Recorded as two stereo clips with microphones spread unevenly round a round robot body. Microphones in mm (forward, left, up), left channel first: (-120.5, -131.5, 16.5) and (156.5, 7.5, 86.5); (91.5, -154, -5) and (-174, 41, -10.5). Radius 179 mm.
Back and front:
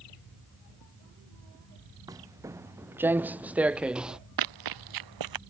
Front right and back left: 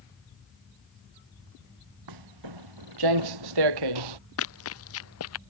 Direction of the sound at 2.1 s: 105° left.